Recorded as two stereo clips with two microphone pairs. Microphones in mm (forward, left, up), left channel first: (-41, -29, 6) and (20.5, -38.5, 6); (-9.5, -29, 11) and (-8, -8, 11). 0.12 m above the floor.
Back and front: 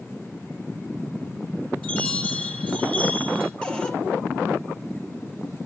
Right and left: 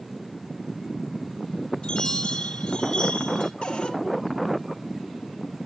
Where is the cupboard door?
115° right, 2 m.